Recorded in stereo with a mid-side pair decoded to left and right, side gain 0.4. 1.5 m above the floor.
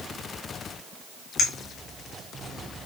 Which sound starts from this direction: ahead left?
A clink, at 1.4 s.